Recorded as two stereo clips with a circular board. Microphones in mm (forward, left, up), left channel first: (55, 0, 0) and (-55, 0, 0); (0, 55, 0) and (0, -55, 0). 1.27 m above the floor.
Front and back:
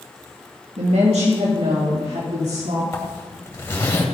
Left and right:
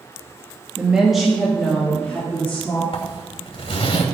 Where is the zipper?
65° left, 2.5 m.